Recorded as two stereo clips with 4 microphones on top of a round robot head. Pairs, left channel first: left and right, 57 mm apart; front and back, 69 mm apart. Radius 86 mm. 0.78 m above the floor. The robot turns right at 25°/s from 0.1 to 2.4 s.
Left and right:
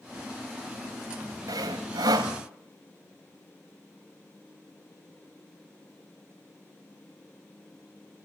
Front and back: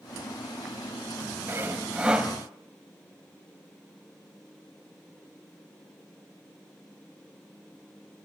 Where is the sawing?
115° right, 1.6 m; by 2.3 s 95° right, 1.6 m.